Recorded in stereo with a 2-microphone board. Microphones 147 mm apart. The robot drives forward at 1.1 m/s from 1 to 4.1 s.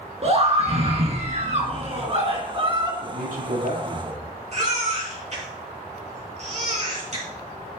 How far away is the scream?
About 2.0 m.